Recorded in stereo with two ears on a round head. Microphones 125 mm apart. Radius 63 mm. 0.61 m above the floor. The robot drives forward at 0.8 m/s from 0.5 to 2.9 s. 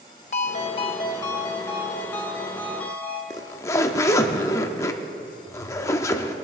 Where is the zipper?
20° left (ahead or behind), 0.7 m.